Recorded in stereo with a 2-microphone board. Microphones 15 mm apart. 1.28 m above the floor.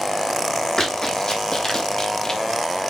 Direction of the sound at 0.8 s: 40° left (ahead or behind).